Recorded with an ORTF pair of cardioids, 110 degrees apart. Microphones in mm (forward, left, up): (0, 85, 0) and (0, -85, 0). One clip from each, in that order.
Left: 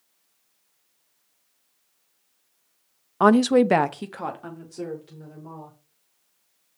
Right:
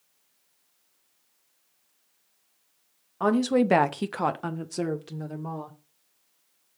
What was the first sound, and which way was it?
A woman speaking, 45° left.